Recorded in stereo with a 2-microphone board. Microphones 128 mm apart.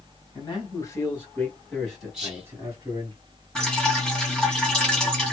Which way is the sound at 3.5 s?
5° left (ahead or behind).